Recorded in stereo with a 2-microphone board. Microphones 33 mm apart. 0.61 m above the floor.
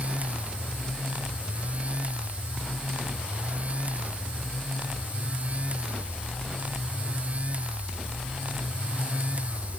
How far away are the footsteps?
No footsteps in this recording.